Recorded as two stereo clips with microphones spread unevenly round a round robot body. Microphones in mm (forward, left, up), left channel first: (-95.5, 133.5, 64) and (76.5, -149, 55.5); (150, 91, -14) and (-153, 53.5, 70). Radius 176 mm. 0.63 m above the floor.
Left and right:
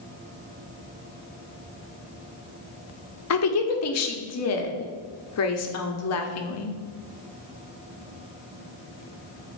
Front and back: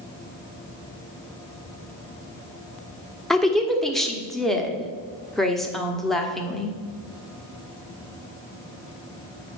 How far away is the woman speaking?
About 1.1 m.